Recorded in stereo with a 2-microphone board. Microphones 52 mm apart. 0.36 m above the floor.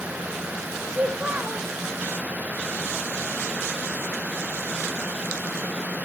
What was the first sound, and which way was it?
A child speaking, 25° right (ahead or behind).